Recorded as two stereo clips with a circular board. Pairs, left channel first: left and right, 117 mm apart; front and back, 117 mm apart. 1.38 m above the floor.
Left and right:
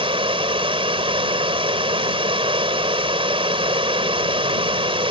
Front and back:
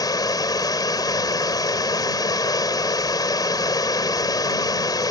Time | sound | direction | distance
0.0 | running water | 55° right | ?